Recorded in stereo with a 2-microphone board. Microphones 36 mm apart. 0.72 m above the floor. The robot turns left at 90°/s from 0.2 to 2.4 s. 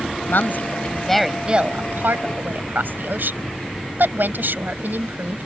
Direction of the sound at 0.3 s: 85° left.